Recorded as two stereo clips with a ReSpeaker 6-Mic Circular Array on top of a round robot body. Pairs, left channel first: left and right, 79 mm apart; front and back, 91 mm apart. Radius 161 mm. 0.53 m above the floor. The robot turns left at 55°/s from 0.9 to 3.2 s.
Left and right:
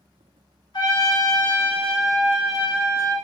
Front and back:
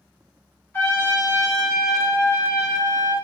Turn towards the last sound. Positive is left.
turn(degrees=-55)